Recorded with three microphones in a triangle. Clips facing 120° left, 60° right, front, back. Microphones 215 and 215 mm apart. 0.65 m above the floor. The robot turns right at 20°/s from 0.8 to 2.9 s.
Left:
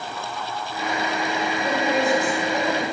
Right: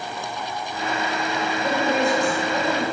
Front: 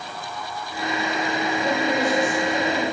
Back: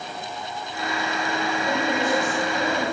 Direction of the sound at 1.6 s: 25° left.